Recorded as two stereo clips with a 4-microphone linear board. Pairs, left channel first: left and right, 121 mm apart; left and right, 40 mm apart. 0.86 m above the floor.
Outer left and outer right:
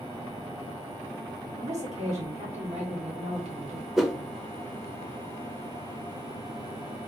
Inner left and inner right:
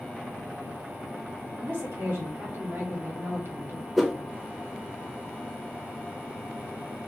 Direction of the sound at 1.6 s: 65° right (ahead or behind).